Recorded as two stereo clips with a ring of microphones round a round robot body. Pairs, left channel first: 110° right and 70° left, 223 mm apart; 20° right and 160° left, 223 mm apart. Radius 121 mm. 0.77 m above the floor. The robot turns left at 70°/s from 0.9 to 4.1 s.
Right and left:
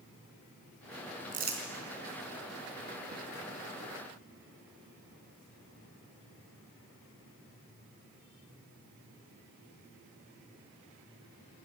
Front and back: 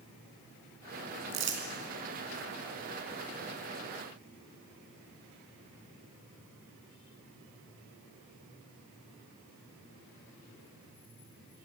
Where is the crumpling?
130° left, 4 m; by 1.6 s 105° left, 4 m.